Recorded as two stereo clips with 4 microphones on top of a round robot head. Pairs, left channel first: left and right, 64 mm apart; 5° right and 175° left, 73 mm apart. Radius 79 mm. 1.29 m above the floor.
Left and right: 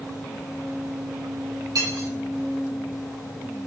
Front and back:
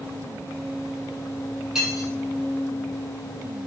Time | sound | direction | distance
1.8 | cutlery clinking | 100° right | 5.5 m